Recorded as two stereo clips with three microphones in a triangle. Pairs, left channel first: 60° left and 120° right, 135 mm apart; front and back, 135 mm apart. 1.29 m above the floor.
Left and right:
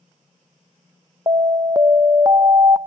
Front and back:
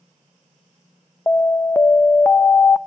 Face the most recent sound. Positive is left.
turn(degrees=-65)